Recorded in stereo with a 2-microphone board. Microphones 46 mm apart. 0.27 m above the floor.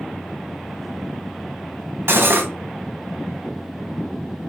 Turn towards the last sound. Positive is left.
turn(degrees=-60)  # may be behind; listen again after turning